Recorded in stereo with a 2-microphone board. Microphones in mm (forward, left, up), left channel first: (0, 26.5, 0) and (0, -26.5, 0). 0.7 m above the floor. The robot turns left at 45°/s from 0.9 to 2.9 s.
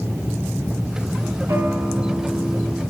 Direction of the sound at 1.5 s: 75° right.